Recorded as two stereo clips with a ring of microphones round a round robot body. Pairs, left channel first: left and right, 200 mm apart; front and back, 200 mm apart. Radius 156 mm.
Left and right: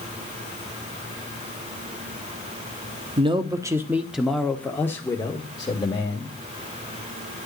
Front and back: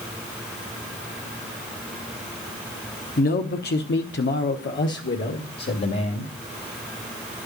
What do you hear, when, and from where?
3.2 s a man speaking: 35° right, 1.0 m; by 6.3 s 25° left, 2.0 m